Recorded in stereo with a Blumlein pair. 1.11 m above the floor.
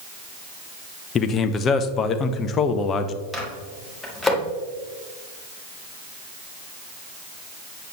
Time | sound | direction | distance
1.1 | a man speaking | 25° left | 0.7 m
3.3 | a microwave | 10° left | 1.7 m